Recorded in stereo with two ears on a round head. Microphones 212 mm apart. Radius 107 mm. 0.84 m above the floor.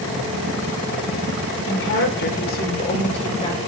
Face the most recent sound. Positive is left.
turn(degrees=20)  # may be behind; listen again after turning